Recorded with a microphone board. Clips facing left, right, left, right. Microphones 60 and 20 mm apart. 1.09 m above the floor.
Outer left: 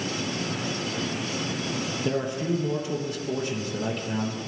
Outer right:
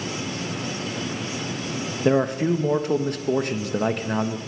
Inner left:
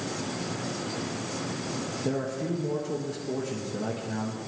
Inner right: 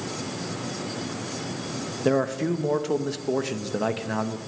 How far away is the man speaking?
About 1.2 m.